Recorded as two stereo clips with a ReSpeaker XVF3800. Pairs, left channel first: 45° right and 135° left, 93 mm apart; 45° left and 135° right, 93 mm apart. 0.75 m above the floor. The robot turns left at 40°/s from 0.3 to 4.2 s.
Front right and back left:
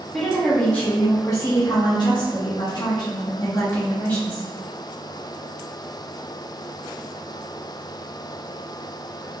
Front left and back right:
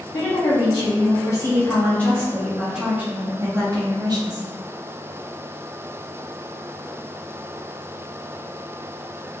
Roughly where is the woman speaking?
Ahead left.